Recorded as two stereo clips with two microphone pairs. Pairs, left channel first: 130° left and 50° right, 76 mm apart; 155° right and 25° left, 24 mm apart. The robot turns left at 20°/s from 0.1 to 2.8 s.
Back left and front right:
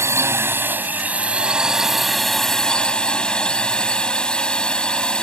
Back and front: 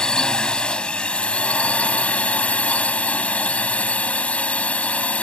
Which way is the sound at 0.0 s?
100° right.